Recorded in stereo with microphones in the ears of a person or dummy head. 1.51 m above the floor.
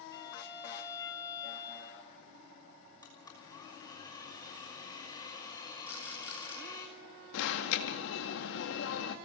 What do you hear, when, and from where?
0.1 s a violin: 20° left (ahead or behind), 2.5 m
3.0 s a blender: 20° left (ahead or behind), 5.5 m
5.9 s a rattle: centre (ahead or behind), 8 m
7.3 s an alarm: 80° left, 2.0 m